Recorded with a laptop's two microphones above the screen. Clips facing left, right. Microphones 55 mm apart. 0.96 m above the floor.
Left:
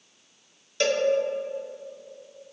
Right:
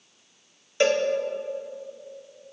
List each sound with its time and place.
0.8 s a cowbell: 20° right (ahead or behind), 0.9 m